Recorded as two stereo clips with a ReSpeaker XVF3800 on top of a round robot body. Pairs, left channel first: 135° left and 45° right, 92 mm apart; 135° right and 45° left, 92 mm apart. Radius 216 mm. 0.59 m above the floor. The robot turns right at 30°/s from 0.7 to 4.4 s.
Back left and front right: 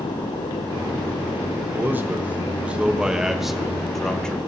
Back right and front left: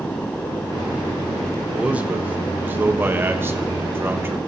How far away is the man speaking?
About 1.2 m.